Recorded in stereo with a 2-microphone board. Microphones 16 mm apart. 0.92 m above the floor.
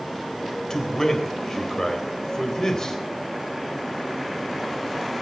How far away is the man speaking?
About 4 m.